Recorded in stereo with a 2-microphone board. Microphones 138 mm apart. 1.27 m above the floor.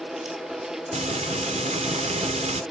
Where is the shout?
No shout in this recording.